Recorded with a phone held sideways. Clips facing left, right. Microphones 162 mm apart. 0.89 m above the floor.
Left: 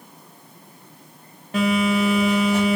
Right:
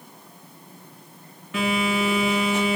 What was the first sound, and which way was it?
A phone buzzing, 35° left (ahead or behind).